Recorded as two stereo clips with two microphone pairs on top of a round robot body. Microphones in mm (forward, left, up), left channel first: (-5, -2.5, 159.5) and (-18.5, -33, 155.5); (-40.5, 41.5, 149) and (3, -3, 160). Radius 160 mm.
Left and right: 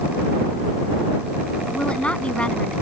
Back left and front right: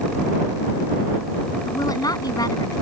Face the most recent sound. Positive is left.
turn(degrees=120)